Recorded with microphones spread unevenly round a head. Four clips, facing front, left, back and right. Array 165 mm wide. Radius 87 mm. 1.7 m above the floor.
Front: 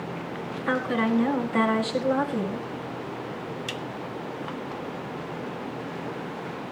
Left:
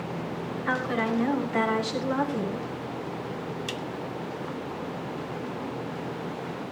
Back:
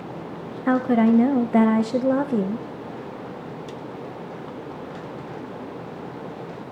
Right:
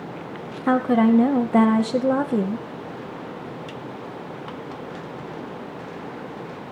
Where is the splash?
No splash in this recording.